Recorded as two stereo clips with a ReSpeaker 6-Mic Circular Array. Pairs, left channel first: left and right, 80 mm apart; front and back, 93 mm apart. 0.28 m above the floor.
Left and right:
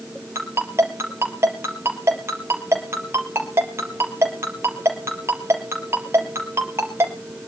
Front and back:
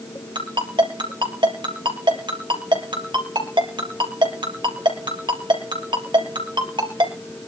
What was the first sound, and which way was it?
A ringtone, 145° right.